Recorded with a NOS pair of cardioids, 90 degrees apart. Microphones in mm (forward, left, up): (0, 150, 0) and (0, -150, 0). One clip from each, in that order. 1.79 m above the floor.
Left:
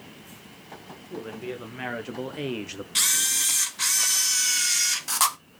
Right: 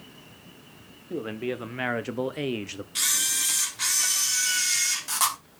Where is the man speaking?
45° right, 1.9 m; by 2.9 s straight ahead, 1.0 m.